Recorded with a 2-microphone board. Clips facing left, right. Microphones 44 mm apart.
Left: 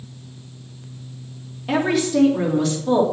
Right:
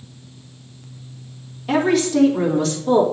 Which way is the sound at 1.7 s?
10° left (ahead or behind).